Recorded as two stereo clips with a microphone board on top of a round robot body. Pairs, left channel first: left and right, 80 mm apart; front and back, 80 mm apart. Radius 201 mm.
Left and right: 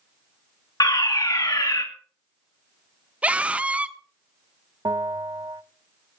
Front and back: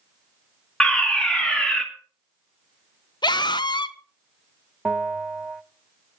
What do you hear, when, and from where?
0.8 s a fire alarm: 80° left, 2.5 m
3.2 s a scream: 15° right, 1.2 m
4.8 s a bell: 100° right, 1.2 m